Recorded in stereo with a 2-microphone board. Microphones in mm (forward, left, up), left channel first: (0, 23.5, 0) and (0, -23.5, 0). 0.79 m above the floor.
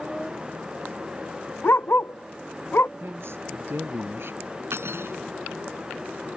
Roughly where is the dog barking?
Left.